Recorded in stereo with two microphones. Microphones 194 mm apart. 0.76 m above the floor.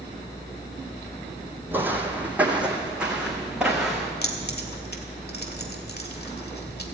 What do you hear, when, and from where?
1.7 s footsteps: 10° right (ahead or behind), 1.8 m; by 4.1 s centre (ahead or behind), 3.5 m
4.2 s keys jangling: 60° left (ahead or behind), 1.7 m